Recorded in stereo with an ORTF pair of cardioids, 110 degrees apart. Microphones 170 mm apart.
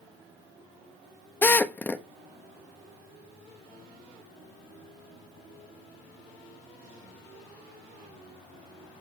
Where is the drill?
10° left, 1.2 m.